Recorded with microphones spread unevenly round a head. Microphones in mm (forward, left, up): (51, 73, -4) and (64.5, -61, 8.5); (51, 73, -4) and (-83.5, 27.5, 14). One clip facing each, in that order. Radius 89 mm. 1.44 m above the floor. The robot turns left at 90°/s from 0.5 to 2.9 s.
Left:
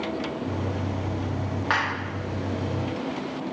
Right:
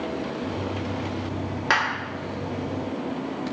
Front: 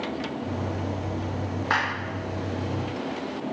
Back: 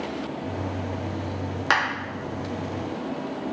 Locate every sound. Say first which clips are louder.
1.7 s a clap: right 3 dB, back 3 dB; 145° right, 1.9 m; by 1.8 s 155° right, 1.9 m